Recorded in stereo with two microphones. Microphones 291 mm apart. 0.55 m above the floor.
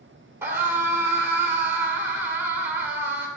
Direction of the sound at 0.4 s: 10° right (ahead or behind).